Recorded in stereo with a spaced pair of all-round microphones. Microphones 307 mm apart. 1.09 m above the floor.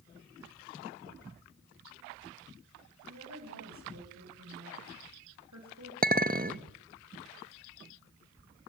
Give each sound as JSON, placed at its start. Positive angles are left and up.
{"t": 3.1, "sound": "a woman speaking", "side_deg": -65, "distance_m": 5.5}
{"t": 6.0, "sound": "a clink", "side_deg": -30, "distance_m": 0.8}